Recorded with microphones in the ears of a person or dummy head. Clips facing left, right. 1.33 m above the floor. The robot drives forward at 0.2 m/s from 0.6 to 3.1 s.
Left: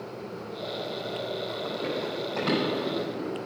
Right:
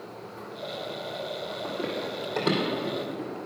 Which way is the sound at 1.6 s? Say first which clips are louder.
Right 1 dB; 35° right (ahead or behind).